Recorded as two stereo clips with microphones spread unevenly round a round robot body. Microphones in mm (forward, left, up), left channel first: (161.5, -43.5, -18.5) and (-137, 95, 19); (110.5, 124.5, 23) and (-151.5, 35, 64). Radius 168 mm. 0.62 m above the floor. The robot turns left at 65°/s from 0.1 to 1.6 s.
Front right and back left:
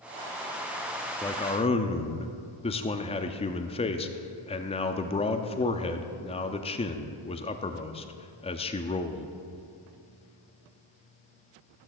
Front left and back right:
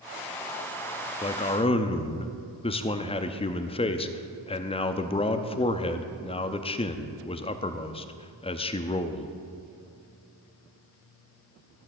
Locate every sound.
1.2 s a man speaking: 35° left, 0.7 m; by 9.3 s 10° left, 0.7 m